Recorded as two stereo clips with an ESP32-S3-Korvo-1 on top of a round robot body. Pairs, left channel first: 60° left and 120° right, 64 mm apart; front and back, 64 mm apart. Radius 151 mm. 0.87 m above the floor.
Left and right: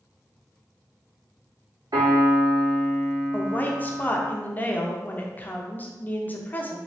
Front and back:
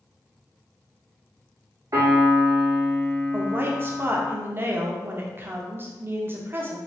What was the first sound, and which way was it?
A piano, 140° right.